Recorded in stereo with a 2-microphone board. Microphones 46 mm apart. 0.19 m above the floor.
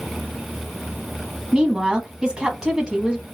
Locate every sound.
1.5 s a woman speaking: 20° right (ahead or behind), 1.1 m